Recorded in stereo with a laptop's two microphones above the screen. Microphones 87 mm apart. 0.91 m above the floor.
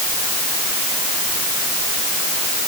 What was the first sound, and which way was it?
Only background noise.